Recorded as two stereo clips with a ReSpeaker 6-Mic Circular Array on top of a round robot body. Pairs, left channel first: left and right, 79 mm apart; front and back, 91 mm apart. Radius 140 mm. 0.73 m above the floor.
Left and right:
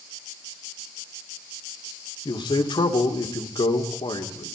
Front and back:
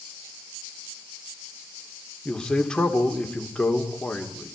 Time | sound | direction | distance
2.2 | a man speaking | 80° left | 3 m